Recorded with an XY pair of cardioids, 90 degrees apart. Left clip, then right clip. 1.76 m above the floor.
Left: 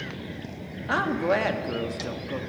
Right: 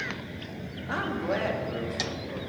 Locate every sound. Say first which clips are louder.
0.9 s a woman speaking: left 6 dB; 50° left, 1.2 m